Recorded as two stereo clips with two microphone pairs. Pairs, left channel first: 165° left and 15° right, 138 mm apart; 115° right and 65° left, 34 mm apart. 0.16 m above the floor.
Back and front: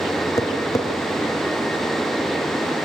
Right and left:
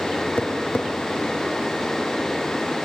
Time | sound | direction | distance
0.4 | tapping | 135° right | 1.7 m